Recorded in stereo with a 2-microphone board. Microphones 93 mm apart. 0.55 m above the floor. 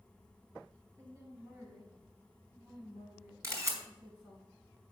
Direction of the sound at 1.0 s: 30° right (ahead or behind).